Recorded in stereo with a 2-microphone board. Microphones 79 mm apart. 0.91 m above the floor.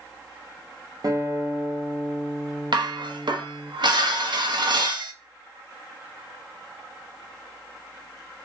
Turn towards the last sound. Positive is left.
turn(degrees=-70)  # may be behind; listen again after turning